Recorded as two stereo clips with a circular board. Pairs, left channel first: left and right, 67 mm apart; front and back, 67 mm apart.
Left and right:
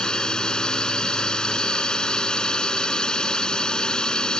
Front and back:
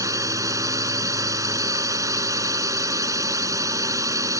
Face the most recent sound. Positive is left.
turn(degrees=165)